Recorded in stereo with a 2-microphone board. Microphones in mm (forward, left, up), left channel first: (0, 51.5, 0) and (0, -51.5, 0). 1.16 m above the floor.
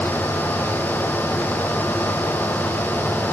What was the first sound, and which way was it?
Only background noise.